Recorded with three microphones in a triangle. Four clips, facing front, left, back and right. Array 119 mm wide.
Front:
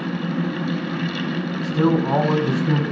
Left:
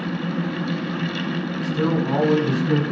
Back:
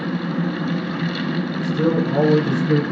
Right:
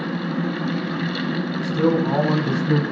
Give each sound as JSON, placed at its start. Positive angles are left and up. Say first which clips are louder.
{"t": 1.6, "sound": "a man speaking", "louder": "right 3 dB, front 1 dB", "azimuth_deg": -15, "distance_m": 6.0}